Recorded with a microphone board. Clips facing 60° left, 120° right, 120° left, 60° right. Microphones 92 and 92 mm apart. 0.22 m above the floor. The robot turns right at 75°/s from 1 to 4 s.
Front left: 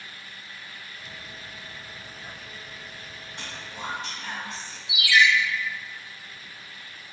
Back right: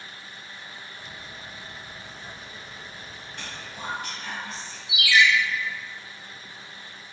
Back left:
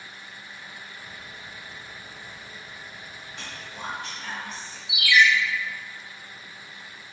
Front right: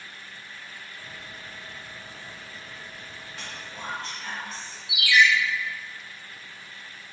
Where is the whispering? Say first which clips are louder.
Front left 1 dB, back left 1 dB; 20° left, 1.4 m; by 4.8 s 65° left, 1.4 m.